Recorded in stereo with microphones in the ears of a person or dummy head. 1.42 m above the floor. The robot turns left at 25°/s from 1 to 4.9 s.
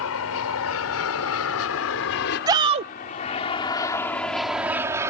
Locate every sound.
0.0 s an aircraft: 75° left (ahead or behind); by 5.1 s 15° right (ahead or behind)
2.5 s a shout: 20° right (ahead or behind); by 2.9 s 30° right (ahead or behind)